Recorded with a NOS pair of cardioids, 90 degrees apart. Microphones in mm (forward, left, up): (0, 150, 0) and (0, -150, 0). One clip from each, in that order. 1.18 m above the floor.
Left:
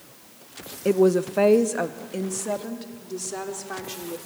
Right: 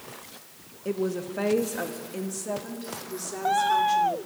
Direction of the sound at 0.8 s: 55° left.